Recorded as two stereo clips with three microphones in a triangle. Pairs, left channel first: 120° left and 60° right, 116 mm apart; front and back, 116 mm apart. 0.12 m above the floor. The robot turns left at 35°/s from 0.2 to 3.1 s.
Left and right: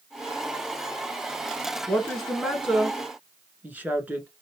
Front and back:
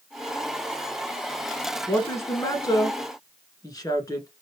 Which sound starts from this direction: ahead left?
A woman speaking, at 1.9 s.